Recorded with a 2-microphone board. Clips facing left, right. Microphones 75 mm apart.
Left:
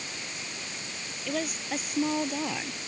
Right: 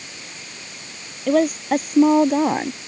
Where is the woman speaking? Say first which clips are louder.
Right 15 dB; 45° right (ahead or behind).